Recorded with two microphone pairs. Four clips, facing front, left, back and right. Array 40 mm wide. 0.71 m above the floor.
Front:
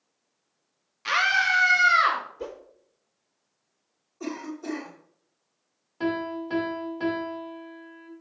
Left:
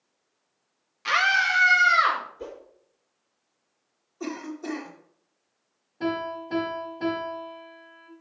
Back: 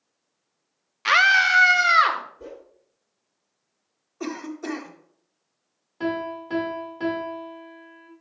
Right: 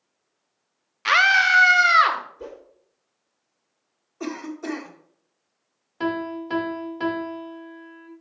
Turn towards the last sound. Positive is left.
turn(degrees=-90)